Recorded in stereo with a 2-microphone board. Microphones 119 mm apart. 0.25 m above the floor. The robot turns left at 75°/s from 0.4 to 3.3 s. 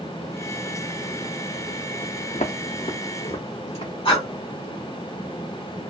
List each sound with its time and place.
2.3 s footsteps: 75° left (ahead or behind), 0.8 m; by 3.9 s 55° left (ahead or behind), 1.5 m
4.0 s breathing: 50° left (ahead or behind), 2 m